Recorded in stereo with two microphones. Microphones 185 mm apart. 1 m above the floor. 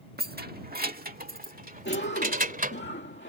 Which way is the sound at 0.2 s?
55° right (ahead or behind).